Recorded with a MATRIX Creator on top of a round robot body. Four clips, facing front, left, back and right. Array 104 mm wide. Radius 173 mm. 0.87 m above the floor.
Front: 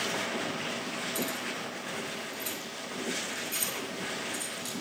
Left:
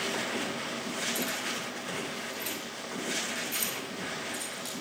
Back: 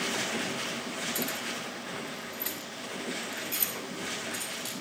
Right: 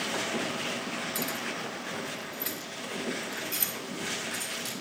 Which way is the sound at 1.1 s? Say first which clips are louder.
Even, front 1 dB; 130° right.